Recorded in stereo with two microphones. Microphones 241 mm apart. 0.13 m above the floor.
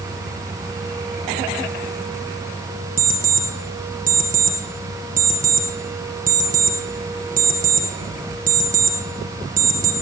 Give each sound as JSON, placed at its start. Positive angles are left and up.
{"t": 3.0, "sound": "an alarm clock", "side_deg": -35, "distance_m": 2.0}